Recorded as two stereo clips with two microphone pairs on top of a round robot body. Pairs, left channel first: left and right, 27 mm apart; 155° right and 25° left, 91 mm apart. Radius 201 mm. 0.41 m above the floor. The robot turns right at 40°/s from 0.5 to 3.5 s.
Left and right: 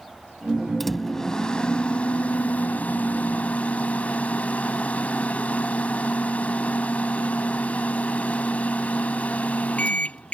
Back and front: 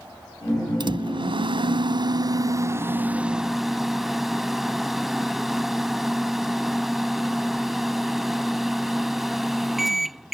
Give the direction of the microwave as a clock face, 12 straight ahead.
12 o'clock.